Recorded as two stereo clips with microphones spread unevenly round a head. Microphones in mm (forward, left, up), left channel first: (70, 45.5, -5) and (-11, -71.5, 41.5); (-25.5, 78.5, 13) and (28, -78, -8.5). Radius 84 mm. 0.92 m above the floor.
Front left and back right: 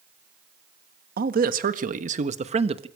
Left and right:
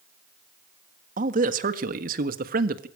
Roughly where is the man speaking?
Right.